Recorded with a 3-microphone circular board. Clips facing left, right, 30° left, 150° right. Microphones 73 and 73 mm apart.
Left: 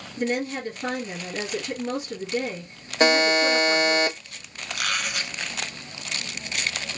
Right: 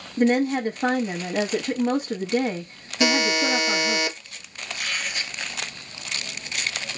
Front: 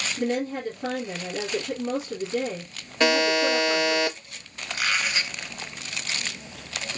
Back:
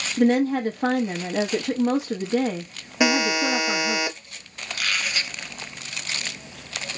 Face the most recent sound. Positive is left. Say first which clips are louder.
# left 2 dB, front 1 dB
turn(degrees=95)